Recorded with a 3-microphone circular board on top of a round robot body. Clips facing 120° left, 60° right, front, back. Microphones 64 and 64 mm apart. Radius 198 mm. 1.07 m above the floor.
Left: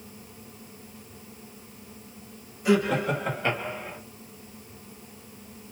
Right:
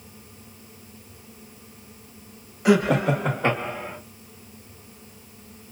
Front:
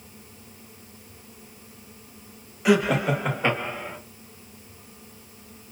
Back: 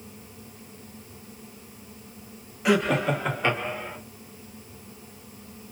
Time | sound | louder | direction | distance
2.6 | laughter | right 4 dB, front 2 dB | 90° right | 1.0 m